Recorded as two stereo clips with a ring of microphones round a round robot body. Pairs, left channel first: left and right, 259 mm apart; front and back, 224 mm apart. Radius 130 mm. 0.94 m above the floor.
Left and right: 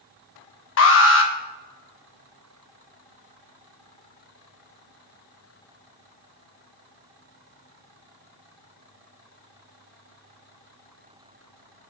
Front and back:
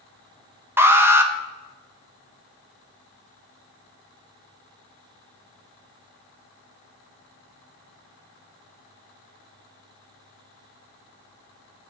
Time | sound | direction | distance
0.8 | an alarm | 105° left | 1.2 m